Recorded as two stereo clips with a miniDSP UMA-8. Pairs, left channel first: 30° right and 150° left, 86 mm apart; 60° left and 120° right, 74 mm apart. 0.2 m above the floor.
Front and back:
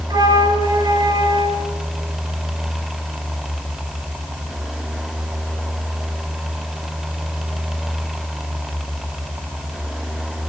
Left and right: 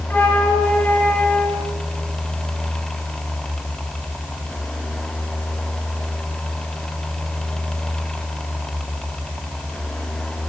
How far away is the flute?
About 2.5 m.